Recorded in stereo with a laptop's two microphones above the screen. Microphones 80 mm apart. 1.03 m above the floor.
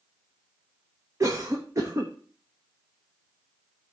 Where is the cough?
40° right (ahead or behind), 0.8 m.